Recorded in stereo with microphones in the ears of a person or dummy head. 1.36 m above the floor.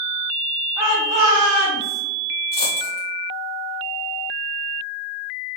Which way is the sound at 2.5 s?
20° left (ahead or behind).